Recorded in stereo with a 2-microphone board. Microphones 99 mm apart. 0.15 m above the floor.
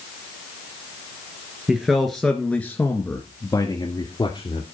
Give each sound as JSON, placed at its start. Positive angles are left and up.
{"t": 1.7, "sound": "a man speaking", "side_deg": -5, "distance_m": 2.0}